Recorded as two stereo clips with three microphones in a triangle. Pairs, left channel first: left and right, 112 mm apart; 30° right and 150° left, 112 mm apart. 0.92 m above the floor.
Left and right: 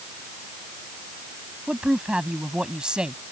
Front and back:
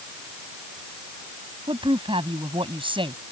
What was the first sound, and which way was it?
A woman speaking, 175° right.